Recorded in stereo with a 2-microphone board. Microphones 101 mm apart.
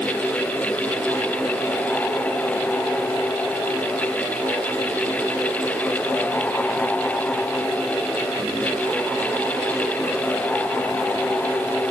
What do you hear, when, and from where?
Only background noise.